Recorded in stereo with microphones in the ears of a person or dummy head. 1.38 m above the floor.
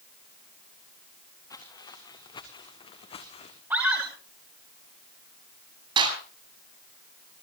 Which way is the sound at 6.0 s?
25° right (ahead or behind).